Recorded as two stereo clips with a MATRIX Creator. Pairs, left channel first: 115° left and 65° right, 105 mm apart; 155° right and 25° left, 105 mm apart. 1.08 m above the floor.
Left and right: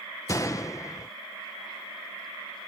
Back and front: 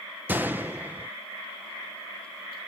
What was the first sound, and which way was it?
A gunshot, 80° left.